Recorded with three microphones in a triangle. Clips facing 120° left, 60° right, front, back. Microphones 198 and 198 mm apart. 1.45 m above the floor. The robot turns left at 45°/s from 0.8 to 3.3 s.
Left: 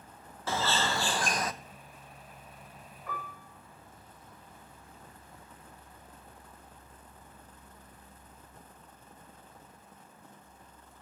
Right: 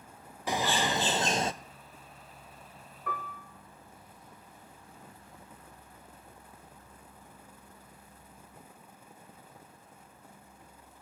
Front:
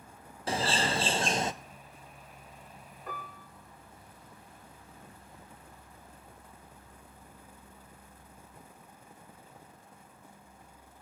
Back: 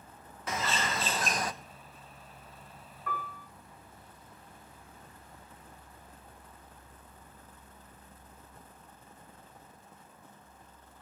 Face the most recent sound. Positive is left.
turn(degrees=-75)